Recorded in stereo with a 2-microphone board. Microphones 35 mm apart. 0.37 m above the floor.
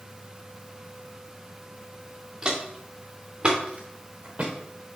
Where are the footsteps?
15° right (ahead or behind), 3 m; by 4.5 s 35° right (ahead or behind), 2.5 m.